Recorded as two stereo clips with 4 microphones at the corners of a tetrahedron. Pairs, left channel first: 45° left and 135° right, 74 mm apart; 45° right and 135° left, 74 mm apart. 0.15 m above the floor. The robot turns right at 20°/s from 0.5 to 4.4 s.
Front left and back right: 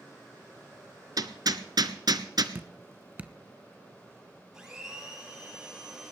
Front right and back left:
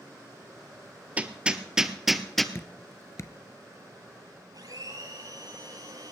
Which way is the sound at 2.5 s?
85° right.